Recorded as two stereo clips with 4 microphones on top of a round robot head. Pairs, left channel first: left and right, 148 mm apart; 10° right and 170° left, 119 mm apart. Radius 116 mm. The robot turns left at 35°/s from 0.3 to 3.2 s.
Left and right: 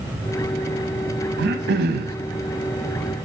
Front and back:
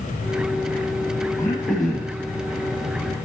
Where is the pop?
No pop in this recording.